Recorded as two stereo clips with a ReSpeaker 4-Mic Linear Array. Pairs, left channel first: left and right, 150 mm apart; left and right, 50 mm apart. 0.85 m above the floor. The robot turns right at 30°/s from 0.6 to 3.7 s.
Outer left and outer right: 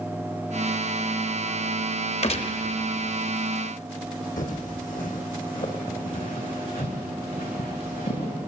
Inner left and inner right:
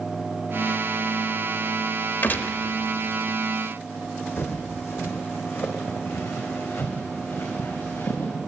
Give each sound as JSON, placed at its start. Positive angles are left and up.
{"t": 2.2, "sound": "a gunshot", "side_deg": 45, "distance_m": 0.6}
{"t": 4.4, "sound": "footsteps", "side_deg": 60, "distance_m": 1.9}